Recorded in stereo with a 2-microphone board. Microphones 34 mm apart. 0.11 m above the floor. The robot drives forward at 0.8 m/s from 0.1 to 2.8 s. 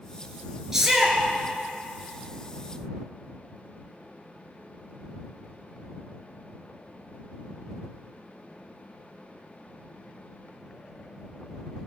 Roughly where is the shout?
Centre.